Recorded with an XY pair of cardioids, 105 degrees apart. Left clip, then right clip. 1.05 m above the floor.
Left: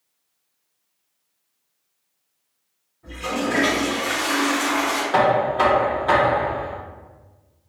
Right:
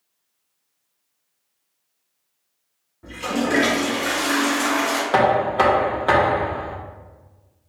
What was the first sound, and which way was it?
A toilet flushing, 65° right.